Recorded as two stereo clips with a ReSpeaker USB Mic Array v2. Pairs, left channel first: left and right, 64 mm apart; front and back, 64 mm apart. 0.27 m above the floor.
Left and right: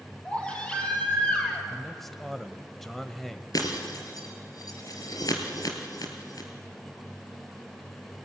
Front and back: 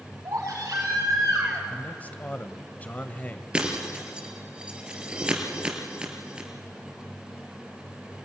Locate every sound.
0.2 s a baby crying: 160° left, 5.5 m
1.7 s a man speaking: 5° left, 1.0 m
3.5 s breaking glass: 105° left, 3 m